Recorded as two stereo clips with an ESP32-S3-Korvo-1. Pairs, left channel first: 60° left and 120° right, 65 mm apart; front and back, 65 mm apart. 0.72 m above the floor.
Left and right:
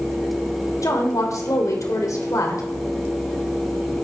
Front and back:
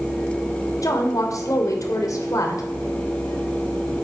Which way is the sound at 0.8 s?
30° left.